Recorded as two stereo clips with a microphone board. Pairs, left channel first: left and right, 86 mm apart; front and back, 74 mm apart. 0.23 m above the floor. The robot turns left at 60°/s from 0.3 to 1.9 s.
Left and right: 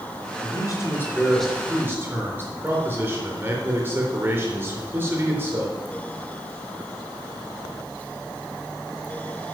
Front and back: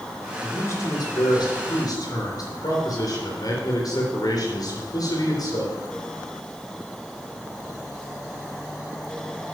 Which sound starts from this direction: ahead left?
A man speaking, at 0.4 s.